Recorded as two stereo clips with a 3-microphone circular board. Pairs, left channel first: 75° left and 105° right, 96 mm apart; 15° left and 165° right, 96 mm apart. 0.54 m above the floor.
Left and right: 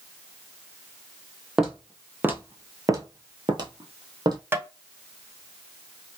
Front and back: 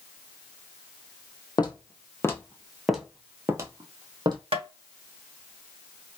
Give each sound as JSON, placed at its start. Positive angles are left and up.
{"t": 1.6, "sound": "footsteps", "azimuth_deg": -20, "distance_m": 1.0}
{"t": 4.5, "sound": "tapping", "azimuth_deg": -170, "distance_m": 0.8}